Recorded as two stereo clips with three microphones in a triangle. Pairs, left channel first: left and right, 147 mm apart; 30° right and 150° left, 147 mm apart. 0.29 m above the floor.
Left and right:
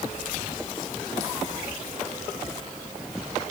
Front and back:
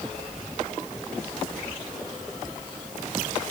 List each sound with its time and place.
Only background noise.